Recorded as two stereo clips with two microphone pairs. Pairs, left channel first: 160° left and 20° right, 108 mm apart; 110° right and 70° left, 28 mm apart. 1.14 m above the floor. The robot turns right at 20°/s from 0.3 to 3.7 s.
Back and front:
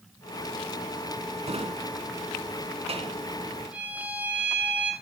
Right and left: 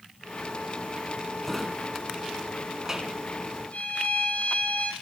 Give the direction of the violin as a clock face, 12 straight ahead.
3 o'clock.